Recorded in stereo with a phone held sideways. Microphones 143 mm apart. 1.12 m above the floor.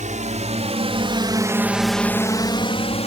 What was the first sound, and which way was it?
A drone, 60° right (ahead or behind).